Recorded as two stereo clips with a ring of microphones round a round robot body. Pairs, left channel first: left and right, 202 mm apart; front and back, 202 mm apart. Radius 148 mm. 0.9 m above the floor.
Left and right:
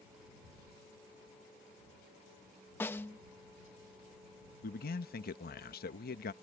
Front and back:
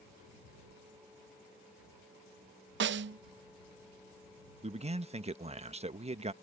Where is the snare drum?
170° left.